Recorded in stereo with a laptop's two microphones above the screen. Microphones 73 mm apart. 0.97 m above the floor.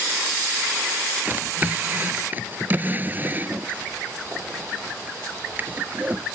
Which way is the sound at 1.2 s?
25° right (ahead or behind).